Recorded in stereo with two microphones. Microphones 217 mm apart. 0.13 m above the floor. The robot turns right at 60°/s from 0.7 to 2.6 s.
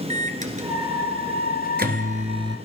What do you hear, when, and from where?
0.1 s a microwave: 35° right (ahead or behind), 1.5 m; by 2.6 s 15° right (ahead or behind), 1.5 m